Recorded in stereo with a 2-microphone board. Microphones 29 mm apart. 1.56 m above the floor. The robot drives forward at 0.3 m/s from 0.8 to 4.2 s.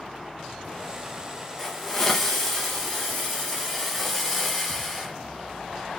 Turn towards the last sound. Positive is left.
turn(degrees=5)  # may be behind; listen again after turning